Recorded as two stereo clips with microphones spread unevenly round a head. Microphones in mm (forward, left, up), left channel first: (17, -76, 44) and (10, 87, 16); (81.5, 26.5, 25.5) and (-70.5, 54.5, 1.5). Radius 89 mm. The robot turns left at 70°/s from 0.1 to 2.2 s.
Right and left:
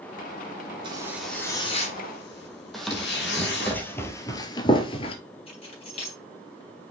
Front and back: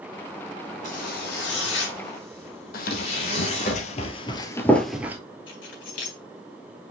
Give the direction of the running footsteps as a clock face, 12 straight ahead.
12 o'clock.